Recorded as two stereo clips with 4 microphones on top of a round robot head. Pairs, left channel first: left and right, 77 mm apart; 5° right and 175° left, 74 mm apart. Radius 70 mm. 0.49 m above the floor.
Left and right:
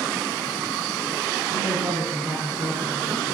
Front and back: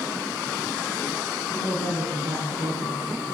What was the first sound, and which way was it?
A woman speaking, 160° right.